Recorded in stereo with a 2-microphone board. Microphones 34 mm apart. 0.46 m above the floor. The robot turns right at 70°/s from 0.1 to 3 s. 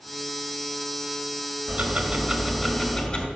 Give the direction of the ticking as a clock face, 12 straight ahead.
2 o'clock.